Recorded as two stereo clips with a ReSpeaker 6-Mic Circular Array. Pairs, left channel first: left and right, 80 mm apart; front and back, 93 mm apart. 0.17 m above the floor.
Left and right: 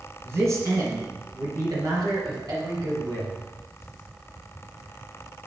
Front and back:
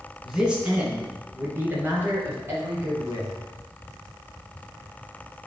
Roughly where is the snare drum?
I don't hear a snare drum.